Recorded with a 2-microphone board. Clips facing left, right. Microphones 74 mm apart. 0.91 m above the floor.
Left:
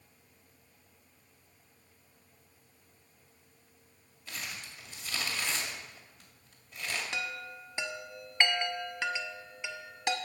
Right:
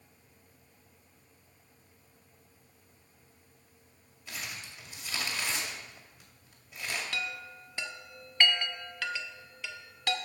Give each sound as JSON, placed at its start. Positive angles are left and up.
{"t": 4.3, "sound": "crumpling", "side_deg": -15, "distance_m": 2.0}
{"t": 7.1, "sound": "a chime", "side_deg": 20, "distance_m": 0.7}